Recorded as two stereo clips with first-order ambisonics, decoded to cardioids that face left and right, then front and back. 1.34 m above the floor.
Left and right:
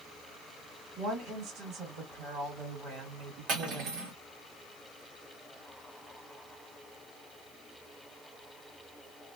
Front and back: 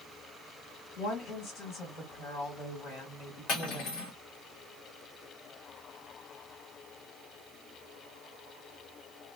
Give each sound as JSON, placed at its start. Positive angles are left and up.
{"t": 1.0, "sound": "a woman speaking", "azimuth_deg": -45, "distance_m": 1.9}
{"t": 3.5, "sound": "cutlery clinking", "azimuth_deg": -45, "distance_m": 1.4}